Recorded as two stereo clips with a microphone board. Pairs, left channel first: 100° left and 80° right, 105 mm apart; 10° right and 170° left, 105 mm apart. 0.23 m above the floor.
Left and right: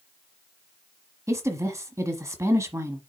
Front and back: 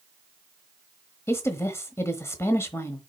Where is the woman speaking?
55° right, 1.1 m.